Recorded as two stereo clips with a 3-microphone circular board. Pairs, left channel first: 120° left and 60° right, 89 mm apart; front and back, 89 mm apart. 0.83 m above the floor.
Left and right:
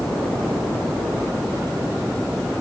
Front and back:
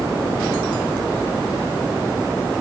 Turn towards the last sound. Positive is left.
No sound to turn to.